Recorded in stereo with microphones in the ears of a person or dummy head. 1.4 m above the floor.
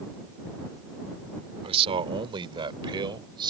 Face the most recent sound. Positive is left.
turn(degrees=-20)  # may be behind; listen again after turning